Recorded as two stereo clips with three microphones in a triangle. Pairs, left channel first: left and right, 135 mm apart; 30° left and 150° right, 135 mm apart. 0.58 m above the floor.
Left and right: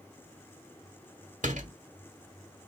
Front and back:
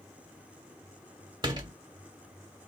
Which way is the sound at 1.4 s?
95° right.